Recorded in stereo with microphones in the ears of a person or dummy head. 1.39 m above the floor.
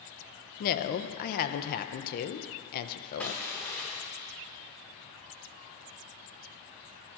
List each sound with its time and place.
0.6 s a woman speaking: 50° left (ahead or behind), 1.1 m
3.2 s crushing: centre (ahead or behind), 1.1 m